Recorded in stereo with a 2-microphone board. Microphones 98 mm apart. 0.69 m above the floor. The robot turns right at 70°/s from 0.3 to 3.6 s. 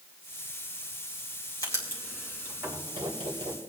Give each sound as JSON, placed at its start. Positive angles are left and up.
{"t": 1.6, "sound": "writing", "side_deg": 40, "distance_m": 3.0}